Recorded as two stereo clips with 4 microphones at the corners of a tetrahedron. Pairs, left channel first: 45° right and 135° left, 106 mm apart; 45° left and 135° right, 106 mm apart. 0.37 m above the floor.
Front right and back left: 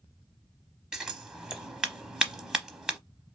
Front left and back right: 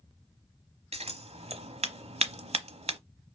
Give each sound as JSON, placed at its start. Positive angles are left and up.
{"t": 0.9, "sound": "scissors", "azimuth_deg": -140, "distance_m": 0.7}